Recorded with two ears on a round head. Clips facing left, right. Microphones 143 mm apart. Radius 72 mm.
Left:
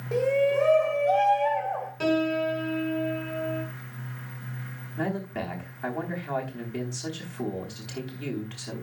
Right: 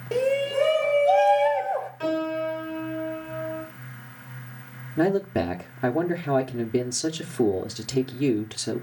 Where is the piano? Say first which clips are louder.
Left 4 dB; 45° left (ahead or behind), 5 m.